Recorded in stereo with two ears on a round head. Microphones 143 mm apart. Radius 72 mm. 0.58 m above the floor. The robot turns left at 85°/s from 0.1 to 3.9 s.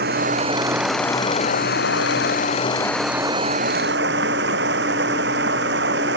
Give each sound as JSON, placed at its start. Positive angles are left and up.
{"t": 0.0, "sound": "running water", "azimuth_deg": -110}